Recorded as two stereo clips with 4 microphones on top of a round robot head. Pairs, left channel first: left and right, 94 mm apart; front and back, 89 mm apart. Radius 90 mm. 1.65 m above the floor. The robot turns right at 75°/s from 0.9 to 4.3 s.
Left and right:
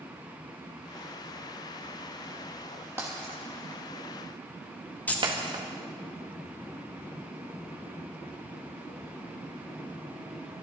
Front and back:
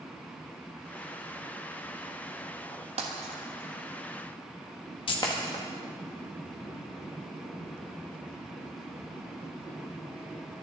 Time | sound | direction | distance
3.0 | breaking glass | 165° right | 1.4 m
5.1 | keys jangling | 20° left | 1.8 m